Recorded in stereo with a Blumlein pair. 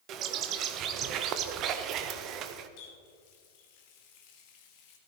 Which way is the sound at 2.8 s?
45° left.